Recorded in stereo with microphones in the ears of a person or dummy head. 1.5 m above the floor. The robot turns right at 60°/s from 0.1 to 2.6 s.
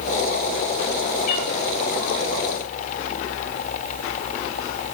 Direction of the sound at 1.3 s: 45° left (ahead or behind).